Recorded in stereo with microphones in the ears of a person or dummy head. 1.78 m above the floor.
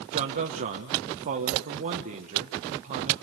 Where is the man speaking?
40° right (ahead or behind), 1.3 m.